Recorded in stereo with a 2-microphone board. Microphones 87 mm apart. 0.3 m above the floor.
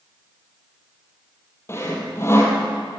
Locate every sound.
1.7 s sawing: 30° left (ahead or behind), 4.5 m